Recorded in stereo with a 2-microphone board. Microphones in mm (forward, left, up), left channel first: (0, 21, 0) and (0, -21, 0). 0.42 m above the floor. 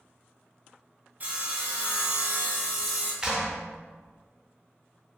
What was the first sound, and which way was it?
Sawing, 40° right (ahead or behind).